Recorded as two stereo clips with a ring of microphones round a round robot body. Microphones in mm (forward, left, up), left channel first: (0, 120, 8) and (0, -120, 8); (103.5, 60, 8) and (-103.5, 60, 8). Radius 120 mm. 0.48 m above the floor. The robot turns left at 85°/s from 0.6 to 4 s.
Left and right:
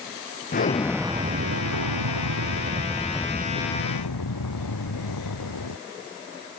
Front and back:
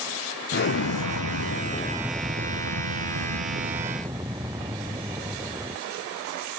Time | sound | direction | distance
0.5 | an explosion | 35° left | ?